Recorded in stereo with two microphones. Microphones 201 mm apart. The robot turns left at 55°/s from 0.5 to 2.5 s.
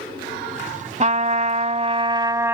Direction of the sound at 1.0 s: 75° right.